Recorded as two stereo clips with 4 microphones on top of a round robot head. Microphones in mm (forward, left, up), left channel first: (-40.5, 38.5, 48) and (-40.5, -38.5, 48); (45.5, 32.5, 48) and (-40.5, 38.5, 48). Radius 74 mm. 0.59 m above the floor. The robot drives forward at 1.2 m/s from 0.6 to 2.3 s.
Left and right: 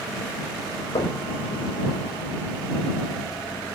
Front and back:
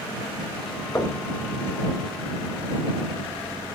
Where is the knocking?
60° left, 3 m; by 1.2 s 70° left, 3 m.